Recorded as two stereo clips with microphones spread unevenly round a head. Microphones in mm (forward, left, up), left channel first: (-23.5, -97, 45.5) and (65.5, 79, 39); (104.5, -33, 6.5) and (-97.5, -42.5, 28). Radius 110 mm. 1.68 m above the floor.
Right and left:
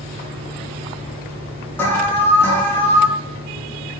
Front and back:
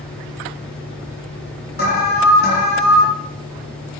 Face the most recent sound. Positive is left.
turn(degrees=-35)